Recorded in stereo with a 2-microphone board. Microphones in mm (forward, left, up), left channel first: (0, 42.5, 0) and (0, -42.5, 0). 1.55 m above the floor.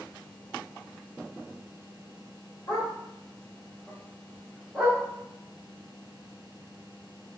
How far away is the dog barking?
About 1.4 m.